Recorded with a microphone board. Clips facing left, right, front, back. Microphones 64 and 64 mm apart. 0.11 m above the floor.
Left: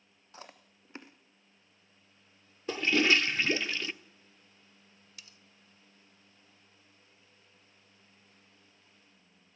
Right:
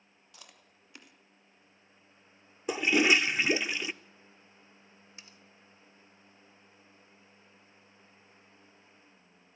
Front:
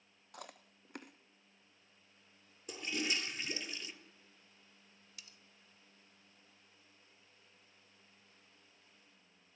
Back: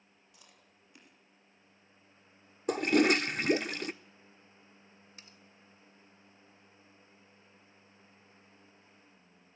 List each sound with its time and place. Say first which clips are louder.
0.3 s chewing: left 7 dB, front 13 dB; 30° left, 1.2 m
2.7 s a toilet flushing: right 1 dB, back 14 dB; 165° right, 0.5 m
5.2 s cutlery clinking: even, back 1 dB; 145° right, 1.0 m